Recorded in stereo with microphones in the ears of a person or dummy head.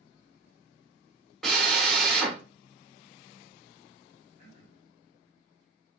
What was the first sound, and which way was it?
A drill, centre (ahead or behind).